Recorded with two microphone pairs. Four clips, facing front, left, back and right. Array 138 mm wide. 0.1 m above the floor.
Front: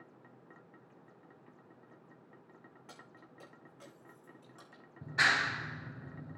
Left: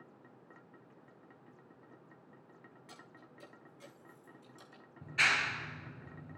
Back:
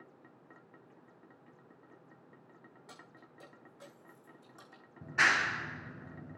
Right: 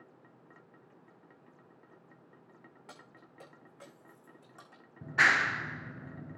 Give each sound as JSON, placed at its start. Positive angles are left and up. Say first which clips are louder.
{"t": 2.9, "sound": "keys jangling", "louder": "right 2 dB, even", "azimuth_deg": -90, "distance_m": 5.5}
{"t": 5.0, "sound": "a clap", "louder": "right 6 dB, back 1 dB", "azimuth_deg": -100, "distance_m": 1.2}